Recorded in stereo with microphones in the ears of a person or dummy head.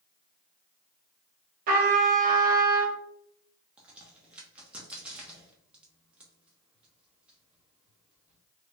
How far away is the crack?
About 1.0 m.